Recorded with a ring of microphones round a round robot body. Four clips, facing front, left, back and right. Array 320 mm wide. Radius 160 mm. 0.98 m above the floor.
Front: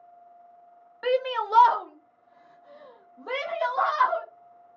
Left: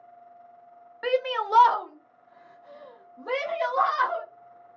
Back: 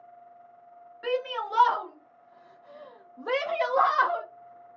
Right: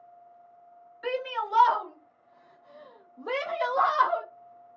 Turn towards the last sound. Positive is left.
turn(degrees=-160)